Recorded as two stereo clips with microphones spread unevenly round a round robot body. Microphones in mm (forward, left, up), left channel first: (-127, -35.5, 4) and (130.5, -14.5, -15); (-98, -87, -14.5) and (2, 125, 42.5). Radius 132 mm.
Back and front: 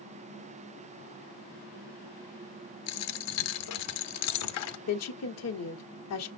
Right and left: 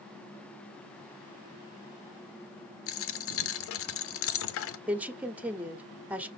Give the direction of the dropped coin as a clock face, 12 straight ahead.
5 o'clock.